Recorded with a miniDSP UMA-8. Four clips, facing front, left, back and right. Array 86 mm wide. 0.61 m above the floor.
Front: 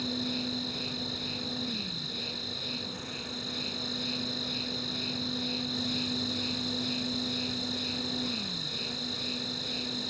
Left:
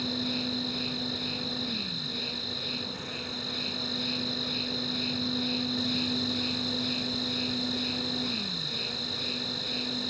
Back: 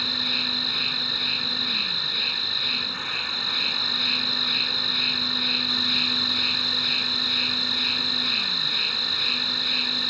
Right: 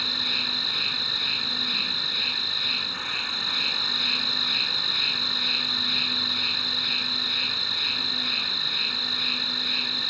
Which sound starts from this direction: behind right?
An insect, at 0.0 s.